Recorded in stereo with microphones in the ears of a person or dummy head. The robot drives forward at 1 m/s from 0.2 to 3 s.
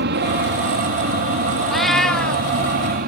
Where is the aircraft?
55° right (ahead or behind); by 3.1 s 50° right (ahead or behind).